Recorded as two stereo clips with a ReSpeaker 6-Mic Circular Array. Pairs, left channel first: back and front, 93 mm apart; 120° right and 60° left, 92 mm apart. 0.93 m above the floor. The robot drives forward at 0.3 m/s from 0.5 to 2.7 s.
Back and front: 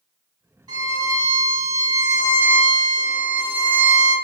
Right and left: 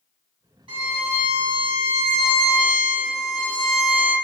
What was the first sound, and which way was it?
A violin, 40° left.